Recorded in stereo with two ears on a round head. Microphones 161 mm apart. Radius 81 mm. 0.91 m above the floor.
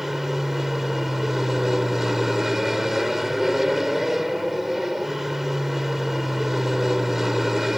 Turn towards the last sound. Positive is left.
turn(degrees=0)  # may be behind; listen again after turning